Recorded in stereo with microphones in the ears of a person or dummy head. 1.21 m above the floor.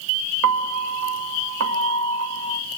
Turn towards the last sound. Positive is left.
turn(degrees=-75)  # may be behind; listen again after turning